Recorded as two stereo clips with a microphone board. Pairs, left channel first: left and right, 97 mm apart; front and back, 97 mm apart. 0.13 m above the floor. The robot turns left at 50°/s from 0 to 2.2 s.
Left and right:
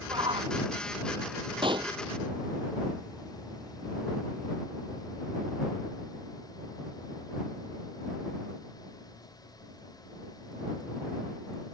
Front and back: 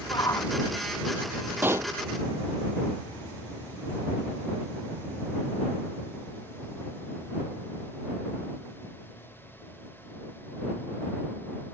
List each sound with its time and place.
0.1 s a shout: 45° right; by 0.6 s 70° right
1.6 s a pop: 110° right; by 1.9 s 125° right